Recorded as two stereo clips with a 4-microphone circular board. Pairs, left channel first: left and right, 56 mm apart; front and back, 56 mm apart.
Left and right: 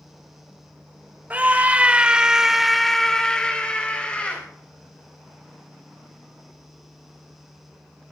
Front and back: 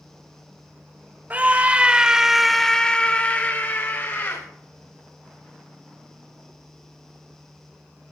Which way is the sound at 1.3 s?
135° right.